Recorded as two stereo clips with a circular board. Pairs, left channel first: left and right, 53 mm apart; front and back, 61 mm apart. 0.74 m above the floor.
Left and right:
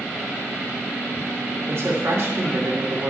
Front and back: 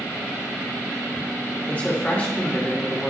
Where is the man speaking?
65° right, 2 m.